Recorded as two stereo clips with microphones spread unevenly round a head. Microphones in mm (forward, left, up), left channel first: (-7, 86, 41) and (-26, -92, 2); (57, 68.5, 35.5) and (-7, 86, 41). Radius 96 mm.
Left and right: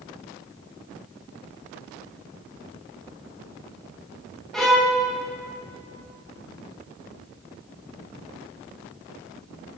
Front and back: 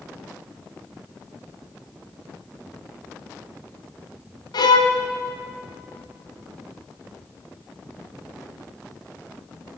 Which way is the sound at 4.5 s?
5° right.